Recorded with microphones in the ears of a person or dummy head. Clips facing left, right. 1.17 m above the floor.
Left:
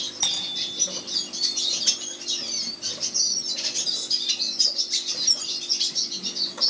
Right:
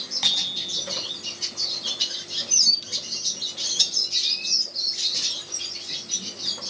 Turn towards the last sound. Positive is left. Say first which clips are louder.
# even
turn(degrees=0)  # may be behind; listen again after turning